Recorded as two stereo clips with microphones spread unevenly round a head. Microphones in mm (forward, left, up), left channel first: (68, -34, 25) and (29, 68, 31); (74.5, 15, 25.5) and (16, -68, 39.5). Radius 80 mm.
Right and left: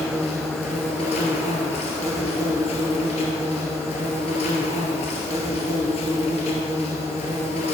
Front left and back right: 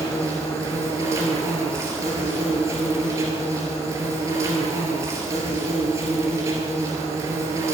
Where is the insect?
85° right, 1.6 m.